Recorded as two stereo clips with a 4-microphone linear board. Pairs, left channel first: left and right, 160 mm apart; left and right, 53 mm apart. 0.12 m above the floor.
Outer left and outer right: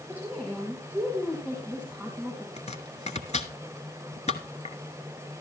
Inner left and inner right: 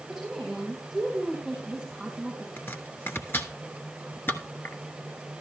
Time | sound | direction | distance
0.1 | a woman speaking | 10° left (ahead or behind) | 4.5 m
2.6 | chopping | 45° left (ahead or behind) | 1.2 m